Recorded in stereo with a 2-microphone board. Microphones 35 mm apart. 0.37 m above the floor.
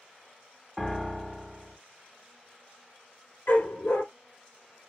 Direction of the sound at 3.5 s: 75° left (ahead or behind).